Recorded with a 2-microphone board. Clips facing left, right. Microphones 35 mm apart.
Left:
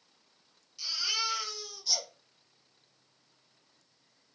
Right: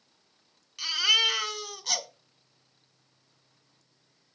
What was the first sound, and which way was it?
A baby crying, 65° right (ahead or behind).